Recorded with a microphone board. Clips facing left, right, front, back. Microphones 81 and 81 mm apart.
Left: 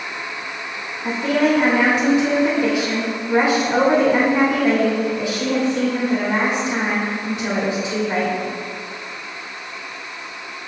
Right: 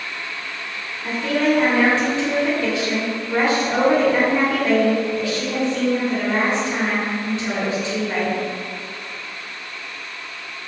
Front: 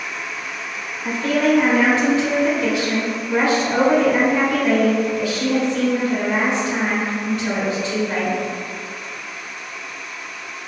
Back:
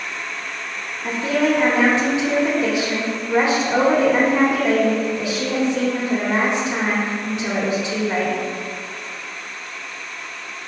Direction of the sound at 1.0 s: 135° left.